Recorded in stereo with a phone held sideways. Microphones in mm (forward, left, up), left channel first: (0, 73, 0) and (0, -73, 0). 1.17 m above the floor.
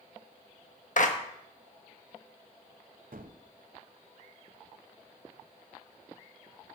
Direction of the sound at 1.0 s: 60° left (ahead or behind).